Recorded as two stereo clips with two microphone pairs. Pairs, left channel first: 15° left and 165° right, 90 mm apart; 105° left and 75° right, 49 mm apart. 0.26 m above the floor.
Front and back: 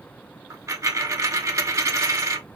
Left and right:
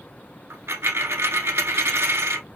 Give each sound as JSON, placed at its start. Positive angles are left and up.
{"t": 0.5, "sound": "a dropped coin", "azimuth_deg": -115, "distance_m": 0.5}